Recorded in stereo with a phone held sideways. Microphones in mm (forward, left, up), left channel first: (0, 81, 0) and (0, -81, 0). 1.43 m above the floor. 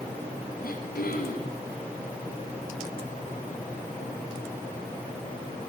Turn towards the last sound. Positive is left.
turn(degrees=65)  # may be behind; listen again after turning